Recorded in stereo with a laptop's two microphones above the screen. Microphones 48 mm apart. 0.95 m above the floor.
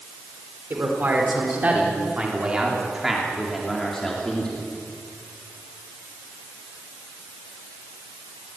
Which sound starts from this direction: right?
A man speaking, at 0.7 s.